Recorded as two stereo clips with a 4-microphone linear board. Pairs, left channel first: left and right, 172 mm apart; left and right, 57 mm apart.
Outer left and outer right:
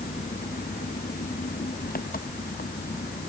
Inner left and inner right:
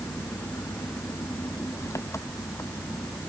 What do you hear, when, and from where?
0.0 s an engine running: 60° left (ahead or behind)